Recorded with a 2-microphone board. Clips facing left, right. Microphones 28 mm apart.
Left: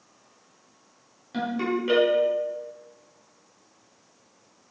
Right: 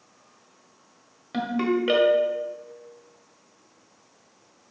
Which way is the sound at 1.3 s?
30° right (ahead or behind).